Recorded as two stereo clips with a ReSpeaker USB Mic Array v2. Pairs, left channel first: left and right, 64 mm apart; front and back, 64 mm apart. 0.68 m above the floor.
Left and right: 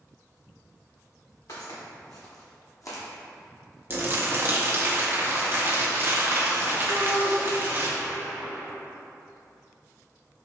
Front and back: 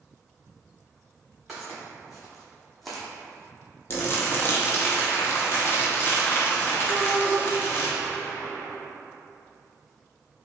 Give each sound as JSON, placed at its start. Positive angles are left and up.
{"t": 1.5, "sound": "footsteps", "azimuth_deg": 90, "distance_m": 2.0}
{"t": 3.9, "sound": "crumpling", "azimuth_deg": -45, "distance_m": 0.7}
{"t": 6.9, "sound": "a shout", "azimuth_deg": 145, "distance_m": 0.7}